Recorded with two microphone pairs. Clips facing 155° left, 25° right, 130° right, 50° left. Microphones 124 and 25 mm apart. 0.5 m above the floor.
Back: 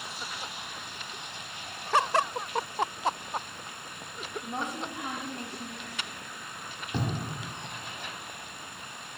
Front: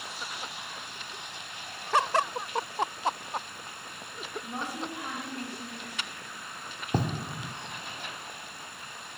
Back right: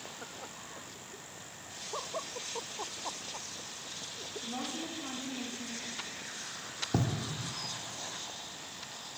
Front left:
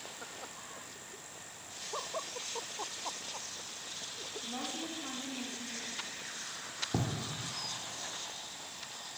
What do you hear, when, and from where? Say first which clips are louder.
4.4 s a woman speaking: back 1 dB, back right 1 dB; 155° left, 0.8 m
6.9 s writing: front 4 dB, back right 3 dB; 55° right, 0.6 m